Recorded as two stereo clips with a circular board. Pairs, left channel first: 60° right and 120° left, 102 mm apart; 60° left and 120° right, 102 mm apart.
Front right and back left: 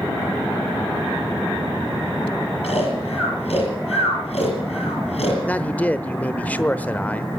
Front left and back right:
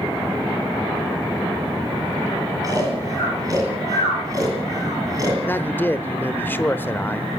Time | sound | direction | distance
2.6 | snoring | 65° right | 7 m
5.5 | a man speaking | 5° left | 0.9 m